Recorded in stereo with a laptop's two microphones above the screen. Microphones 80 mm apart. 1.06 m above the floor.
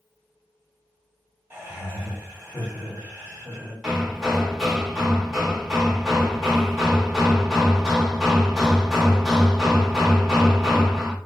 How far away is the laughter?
About 2.0 m.